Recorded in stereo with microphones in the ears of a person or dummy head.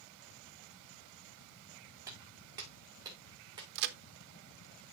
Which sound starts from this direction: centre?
Footsteps, at 2.1 s.